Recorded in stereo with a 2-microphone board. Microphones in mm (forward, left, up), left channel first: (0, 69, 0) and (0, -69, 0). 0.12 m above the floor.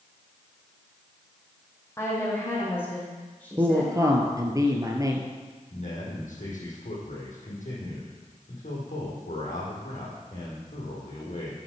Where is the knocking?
No knocking in this recording.